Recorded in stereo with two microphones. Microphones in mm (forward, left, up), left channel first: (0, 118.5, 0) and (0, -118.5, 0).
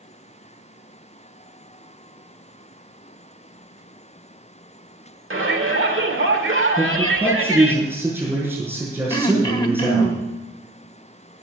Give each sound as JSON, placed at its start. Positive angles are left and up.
{"t": 5.3, "sound": "a shout", "side_deg": -60, "distance_m": 1.6}
{"t": 6.8, "sound": "a man speaking", "side_deg": -10, "distance_m": 7.5}
{"t": 9.1, "sound": "throat clearing", "side_deg": 20, "distance_m": 1.1}